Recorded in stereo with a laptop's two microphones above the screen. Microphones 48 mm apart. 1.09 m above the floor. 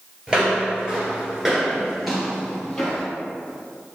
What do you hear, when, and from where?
0.3 s footsteps: 15° right (ahead or behind), 1.3 m; by 3.1 s 5° left (ahead or behind), 2 m